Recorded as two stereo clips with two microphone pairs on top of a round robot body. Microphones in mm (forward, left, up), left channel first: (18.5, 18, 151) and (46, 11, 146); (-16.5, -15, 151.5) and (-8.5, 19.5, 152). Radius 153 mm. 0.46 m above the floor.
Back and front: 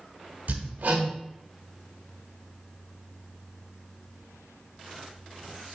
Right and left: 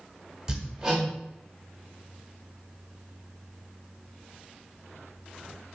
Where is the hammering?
5° left, 1.0 m.